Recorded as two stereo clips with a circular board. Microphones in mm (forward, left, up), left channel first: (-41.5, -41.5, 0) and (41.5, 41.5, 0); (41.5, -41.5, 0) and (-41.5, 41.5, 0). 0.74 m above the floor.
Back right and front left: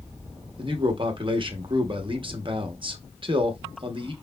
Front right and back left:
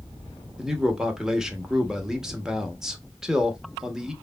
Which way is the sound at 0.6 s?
50° left.